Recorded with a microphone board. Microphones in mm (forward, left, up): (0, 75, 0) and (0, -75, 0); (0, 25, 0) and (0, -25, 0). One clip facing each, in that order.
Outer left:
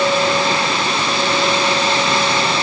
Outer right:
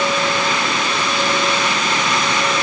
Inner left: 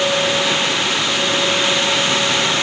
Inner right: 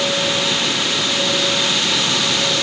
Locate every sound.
Only background noise.